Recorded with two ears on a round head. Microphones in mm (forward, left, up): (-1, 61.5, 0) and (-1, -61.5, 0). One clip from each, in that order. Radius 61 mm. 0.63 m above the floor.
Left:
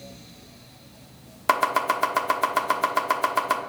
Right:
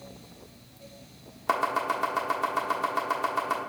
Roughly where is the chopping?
Left.